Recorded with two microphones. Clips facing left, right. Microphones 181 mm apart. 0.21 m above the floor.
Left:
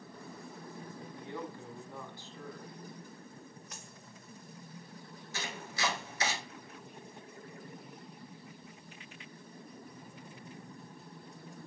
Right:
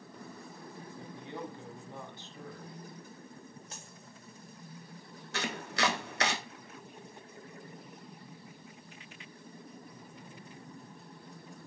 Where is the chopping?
70° right (ahead or behind), 0.9 m.